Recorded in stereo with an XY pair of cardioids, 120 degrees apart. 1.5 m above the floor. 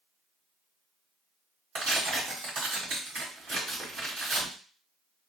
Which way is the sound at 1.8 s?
70° right.